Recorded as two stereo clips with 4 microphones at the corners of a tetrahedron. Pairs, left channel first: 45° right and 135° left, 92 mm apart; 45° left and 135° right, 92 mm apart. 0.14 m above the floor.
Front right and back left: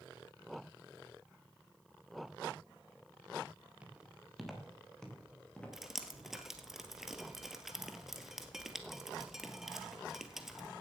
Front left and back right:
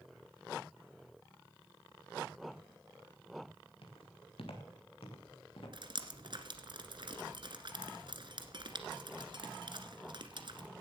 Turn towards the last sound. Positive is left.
turn(degrees=-140)